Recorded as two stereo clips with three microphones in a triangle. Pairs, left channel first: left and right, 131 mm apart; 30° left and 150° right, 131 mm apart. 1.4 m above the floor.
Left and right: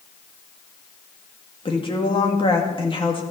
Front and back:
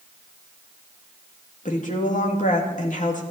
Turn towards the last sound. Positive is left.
turn(degrees=40)